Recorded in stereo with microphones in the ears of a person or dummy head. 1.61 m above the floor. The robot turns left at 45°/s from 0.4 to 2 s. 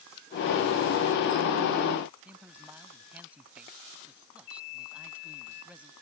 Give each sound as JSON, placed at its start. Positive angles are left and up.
{"t": 2.2, "sound": "a man speaking", "side_deg": -15}